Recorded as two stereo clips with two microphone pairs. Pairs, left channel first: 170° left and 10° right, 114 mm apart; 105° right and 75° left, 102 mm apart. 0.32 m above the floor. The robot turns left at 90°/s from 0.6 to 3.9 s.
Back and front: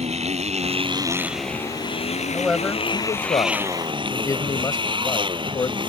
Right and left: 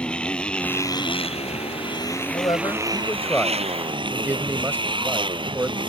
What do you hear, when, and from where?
0.0 s a motorcycle: 25° right; by 5.9 s 35° left
2.3 s a man speaking: 90° right; by 5.8 s 130° left